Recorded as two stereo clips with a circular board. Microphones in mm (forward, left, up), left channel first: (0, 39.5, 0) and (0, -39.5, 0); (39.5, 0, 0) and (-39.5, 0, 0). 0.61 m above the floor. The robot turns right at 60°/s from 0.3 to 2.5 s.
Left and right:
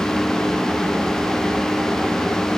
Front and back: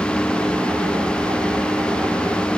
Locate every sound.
Only background noise.